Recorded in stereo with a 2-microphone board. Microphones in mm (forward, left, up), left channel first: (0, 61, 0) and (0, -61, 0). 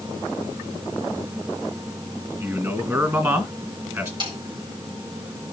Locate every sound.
2.4 s a man speaking: 25° right (ahead or behind), 1.8 m
4.2 s a snare drum: 40° right (ahead or behind), 4 m